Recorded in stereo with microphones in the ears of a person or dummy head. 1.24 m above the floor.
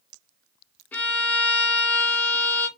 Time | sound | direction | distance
0.9 | a violin | 15° left (ahead or behind) | 0.8 m